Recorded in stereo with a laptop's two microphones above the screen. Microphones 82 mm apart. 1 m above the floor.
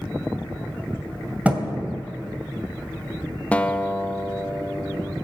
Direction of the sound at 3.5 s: 15° left (ahead or behind).